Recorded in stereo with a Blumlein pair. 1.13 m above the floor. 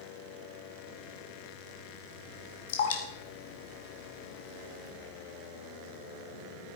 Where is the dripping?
55° left, 2 m.